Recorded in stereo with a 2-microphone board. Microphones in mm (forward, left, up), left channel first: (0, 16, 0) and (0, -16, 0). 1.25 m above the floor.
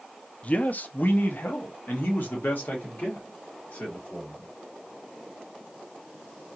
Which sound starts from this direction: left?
A man speaking, at 0.4 s.